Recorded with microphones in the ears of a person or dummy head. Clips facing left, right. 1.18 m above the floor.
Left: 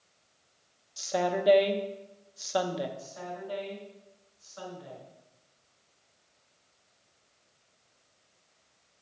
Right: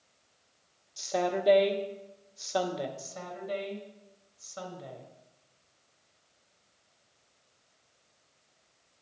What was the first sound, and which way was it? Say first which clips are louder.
A woman speaking: left 1 dB; centre (ahead or behind).